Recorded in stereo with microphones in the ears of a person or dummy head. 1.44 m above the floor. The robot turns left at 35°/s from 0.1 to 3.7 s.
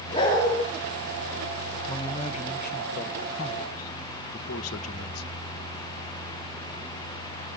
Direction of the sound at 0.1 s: 30° left (ahead or behind).